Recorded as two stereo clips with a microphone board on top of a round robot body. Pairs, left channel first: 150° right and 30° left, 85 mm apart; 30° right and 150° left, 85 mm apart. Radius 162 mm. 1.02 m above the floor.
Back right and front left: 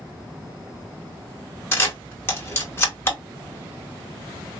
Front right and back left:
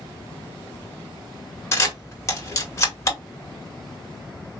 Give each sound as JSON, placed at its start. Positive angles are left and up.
{"t": 1.7, "sound": "a camera shutter", "azimuth_deg": -85, "distance_m": 1.9}